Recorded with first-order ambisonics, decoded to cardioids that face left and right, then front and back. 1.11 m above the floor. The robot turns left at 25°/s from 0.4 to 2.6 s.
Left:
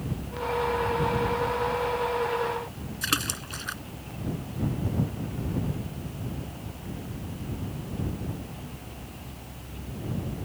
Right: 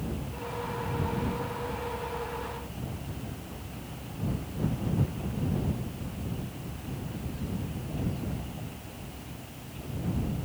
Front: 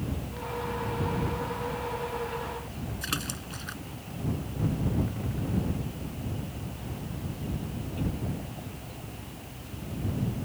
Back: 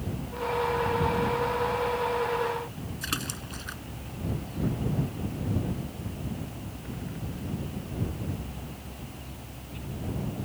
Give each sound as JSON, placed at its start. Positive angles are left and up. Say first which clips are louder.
{"t": 3.0, "sound": "a splash", "louder": "left 14 dB, back 1 dB", "azimuth_deg": 95}